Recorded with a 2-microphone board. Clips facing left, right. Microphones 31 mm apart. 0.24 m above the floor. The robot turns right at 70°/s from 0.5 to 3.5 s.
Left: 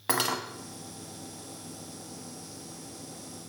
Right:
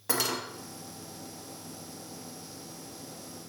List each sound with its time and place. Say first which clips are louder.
0.1 s cutlery clinking: left 2 dB; 50° left (ahead or behind), 0.9 m